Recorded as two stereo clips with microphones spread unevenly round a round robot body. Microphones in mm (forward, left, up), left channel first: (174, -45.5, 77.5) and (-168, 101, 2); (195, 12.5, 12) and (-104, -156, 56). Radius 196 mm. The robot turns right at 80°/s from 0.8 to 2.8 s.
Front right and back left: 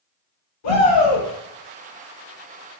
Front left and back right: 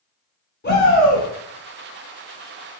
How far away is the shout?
About 1.9 m.